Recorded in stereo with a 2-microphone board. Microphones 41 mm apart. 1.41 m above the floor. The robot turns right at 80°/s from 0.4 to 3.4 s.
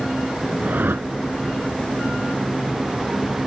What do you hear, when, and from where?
0.6 s a whoosh: 145° right; by 1.1 s 110° right